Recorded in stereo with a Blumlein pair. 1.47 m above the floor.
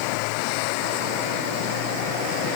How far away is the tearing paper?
I don't hear tearing paper.